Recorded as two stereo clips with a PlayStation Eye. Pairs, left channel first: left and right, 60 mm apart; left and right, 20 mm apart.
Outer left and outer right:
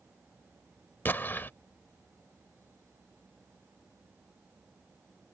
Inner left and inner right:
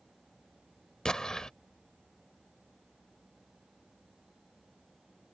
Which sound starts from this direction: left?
An explosion, at 1.1 s.